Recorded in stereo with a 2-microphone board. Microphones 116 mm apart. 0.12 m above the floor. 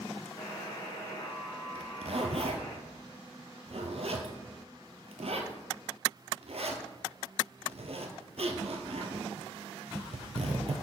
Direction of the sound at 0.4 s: 40° left (ahead or behind).